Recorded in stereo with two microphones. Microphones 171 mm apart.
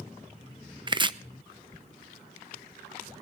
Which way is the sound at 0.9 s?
30° right (ahead or behind).